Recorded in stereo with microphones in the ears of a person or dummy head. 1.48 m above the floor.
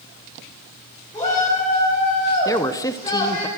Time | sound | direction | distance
1.1 | a shout | 15° left (ahead or behind) | 5 m
2.5 | a man speaking | 20° left (ahead or behind) | 0.7 m